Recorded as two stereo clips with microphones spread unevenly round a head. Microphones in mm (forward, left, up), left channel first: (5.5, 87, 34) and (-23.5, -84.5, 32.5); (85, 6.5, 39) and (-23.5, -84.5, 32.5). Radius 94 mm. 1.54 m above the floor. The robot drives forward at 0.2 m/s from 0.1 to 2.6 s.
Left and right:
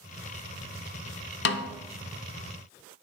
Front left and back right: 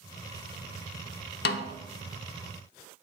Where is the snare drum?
55° left, 0.7 m.